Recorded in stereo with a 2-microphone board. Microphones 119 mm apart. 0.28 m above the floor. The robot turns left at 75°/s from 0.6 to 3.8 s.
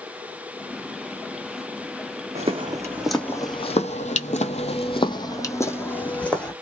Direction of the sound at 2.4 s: 65° right (ahead or behind).